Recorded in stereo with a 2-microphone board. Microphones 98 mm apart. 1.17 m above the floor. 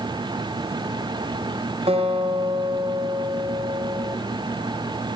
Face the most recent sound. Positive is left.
turn(degrees=-80)